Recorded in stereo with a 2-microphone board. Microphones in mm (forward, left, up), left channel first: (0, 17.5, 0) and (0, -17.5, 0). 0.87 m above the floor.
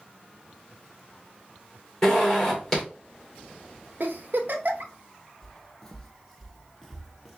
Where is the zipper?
15° left (ahead or behind), 2.5 m.